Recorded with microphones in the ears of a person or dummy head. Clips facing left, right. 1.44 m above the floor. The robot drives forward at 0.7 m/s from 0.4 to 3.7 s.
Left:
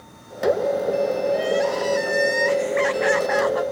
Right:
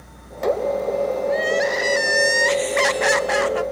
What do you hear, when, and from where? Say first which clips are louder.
1.3 s crying: even; 20° right (ahead or behind), 1.3 m; by 3.6 s 40° right (ahead or behind), 0.7 m